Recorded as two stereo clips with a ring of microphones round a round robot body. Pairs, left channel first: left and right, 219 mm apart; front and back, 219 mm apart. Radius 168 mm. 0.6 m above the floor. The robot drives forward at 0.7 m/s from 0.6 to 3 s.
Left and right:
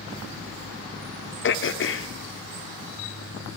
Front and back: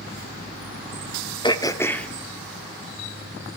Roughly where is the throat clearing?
Ahead left.